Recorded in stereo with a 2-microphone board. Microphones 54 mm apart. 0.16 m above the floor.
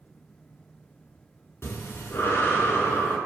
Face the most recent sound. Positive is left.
turn(degrees=45)  # may be behind; listen again after turning